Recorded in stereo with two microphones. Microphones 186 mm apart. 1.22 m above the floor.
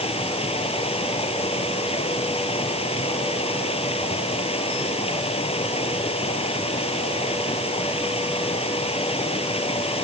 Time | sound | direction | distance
0.0 | running water | 35° left (ahead or behind) | ?